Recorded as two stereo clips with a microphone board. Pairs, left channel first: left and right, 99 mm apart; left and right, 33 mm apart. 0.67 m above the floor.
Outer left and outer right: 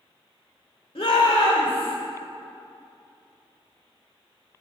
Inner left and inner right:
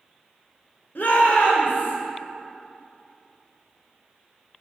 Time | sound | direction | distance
0.9 | a shout | 70° left (ahead or behind) | 1.9 m